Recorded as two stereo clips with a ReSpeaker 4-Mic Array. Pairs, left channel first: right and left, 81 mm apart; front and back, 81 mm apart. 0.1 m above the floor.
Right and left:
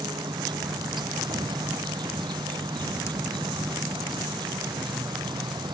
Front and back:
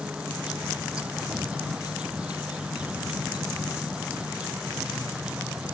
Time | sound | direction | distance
0.0 | an insect | 105° left | ?